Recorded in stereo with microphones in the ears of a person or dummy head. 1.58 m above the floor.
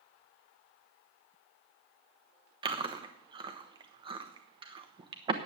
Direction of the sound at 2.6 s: 30° right (ahead or behind).